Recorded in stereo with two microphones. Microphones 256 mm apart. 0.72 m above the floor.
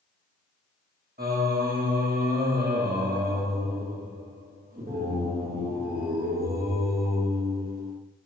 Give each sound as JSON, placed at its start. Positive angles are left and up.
{"t": 1.2, "sound": "singing", "side_deg": -35, "distance_m": 0.9}